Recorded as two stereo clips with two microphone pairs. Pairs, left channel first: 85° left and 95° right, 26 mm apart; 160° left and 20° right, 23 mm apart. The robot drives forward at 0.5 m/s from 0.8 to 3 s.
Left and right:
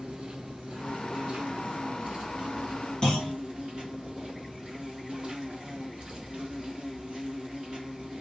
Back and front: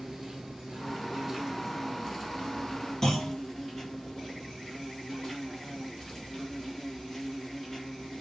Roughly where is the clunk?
Behind left.